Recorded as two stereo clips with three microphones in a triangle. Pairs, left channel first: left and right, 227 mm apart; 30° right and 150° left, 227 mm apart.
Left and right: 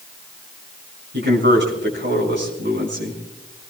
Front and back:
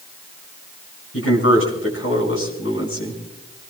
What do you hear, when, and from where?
1.1 s a man speaking: 55° right, 6.5 m